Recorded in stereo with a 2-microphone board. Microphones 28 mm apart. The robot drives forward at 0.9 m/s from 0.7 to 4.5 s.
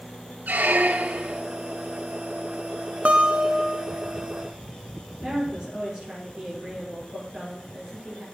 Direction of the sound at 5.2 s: 25° right (ahead or behind).